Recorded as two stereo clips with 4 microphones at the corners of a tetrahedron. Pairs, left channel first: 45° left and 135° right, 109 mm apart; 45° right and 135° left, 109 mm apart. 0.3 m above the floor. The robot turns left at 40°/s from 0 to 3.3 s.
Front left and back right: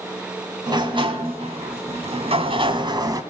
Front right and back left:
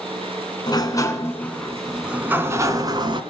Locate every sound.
0.7 s a sliding door: 85° right, 1.4 m; by 3.2 s 170° left, 1.4 m